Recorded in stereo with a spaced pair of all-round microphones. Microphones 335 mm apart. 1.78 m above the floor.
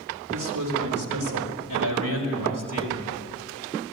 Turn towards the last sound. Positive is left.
turn(degrees=-80)